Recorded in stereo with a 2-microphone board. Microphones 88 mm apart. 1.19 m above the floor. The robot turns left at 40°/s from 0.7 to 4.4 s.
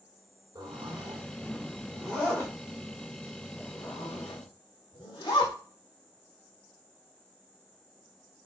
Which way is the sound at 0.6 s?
50° right (ahead or behind).